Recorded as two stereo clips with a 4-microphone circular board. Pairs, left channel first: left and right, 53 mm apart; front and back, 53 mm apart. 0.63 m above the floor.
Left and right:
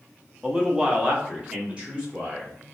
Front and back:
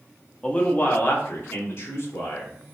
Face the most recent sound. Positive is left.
turn(degrees=-25)